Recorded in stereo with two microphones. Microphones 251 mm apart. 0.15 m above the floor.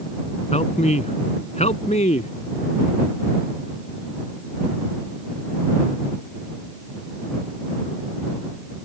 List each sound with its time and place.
0.5 s a man speaking: 25° left (ahead or behind)